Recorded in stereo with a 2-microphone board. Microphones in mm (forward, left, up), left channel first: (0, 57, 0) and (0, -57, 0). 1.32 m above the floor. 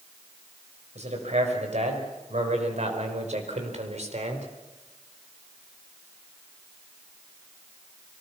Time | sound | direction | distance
0.9 | a man speaking | 80° right | 5 m